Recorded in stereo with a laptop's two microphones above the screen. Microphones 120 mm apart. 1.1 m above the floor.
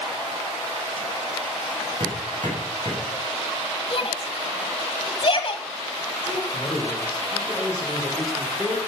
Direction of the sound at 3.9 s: 45° left (ahead or behind).